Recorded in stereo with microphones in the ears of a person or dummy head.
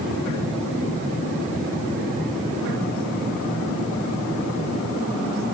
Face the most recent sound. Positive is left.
No sound to turn to.